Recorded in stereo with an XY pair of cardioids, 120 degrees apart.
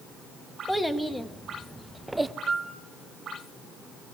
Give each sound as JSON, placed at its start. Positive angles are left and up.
{"t": 0.7, "sound": "a child speaking", "azimuth_deg": 0, "distance_m": 1.8}
{"t": 2.5, "sound": "a piano", "azimuth_deg": -40, "distance_m": 3.0}